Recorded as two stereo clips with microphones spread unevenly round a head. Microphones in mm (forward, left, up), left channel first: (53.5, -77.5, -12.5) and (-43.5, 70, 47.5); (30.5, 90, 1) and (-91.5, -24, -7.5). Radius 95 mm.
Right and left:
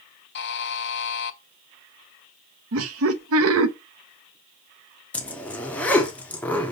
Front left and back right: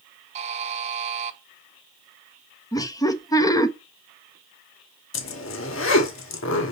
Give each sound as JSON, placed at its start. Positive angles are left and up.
{"t": 0.3, "sound": "a buzzer", "azimuth_deg": -90, "distance_m": 0.7}
{"t": 2.7, "sound": "laughter", "azimuth_deg": 115, "distance_m": 1.1}
{"t": 5.1, "sound": "a zipper", "azimuth_deg": 25, "distance_m": 1.4}